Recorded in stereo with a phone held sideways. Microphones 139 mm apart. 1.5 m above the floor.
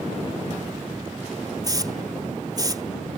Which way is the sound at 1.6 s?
30° right (ahead or behind).